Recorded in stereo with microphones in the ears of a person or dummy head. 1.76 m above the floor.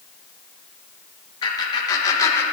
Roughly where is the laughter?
Left.